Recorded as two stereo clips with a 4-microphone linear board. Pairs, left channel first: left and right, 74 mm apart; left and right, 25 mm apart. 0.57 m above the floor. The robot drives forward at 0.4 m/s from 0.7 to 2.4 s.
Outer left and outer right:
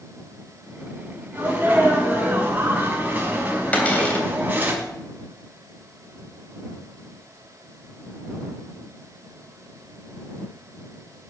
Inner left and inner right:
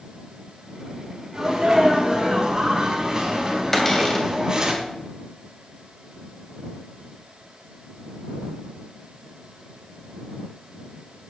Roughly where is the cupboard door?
Centre.